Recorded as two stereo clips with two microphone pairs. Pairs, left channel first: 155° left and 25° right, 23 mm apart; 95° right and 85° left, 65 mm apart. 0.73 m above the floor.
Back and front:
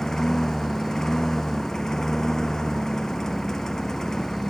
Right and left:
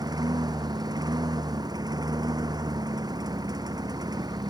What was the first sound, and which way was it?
A lawn mower, 85° left.